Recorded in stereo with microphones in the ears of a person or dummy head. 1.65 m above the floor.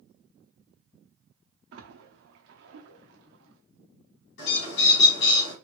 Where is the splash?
70° right (ahead or behind), 0.7 m.